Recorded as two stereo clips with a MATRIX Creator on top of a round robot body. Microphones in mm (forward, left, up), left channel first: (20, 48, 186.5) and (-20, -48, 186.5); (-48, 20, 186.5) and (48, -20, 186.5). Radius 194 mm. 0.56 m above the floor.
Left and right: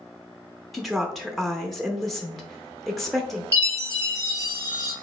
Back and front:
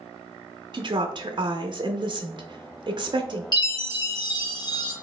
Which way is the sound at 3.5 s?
165° right.